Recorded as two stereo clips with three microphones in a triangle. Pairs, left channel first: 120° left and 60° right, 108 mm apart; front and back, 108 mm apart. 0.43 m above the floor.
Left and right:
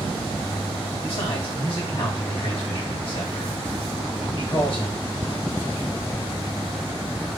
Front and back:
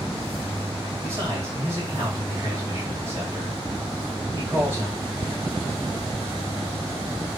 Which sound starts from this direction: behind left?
A man speaking, at 1.0 s.